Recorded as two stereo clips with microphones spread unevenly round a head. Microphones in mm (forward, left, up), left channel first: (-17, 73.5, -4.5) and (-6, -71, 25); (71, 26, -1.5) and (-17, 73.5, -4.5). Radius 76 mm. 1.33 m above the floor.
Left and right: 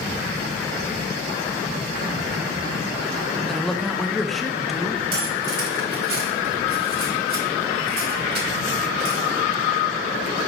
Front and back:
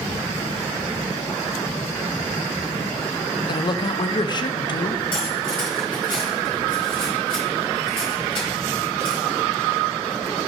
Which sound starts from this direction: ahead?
A man speaking, at 3.5 s.